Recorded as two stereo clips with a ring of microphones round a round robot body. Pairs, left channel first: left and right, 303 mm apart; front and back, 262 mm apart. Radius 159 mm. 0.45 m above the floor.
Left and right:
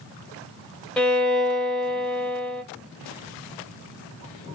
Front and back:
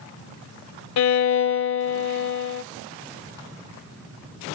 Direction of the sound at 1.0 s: 5° left.